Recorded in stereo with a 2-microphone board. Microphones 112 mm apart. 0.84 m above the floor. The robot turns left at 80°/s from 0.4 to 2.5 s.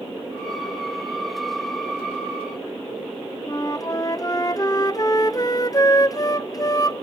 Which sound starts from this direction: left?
A flute, at 3.5 s.